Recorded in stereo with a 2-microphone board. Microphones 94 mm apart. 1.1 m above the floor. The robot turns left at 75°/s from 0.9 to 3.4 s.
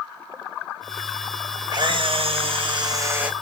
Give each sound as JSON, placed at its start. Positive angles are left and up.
{"t": 1.7, "sound": "a camera shutter", "azimuth_deg": -50, "distance_m": 1.0}